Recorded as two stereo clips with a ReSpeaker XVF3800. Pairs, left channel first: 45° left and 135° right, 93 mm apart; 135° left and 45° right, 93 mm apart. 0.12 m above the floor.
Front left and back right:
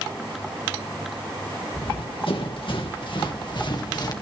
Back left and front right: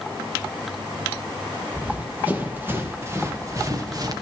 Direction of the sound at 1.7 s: 30° left.